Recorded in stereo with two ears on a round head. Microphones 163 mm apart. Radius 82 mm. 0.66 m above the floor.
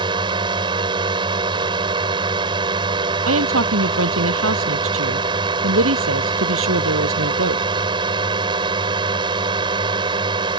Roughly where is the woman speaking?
Right.